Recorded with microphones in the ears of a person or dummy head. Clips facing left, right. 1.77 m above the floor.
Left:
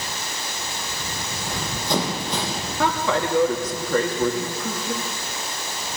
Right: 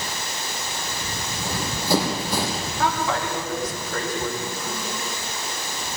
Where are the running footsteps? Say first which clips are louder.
Right 2 dB; 5° right (ahead or behind), 5 m; by 2.7 s 10° right (ahead or behind), 4 m.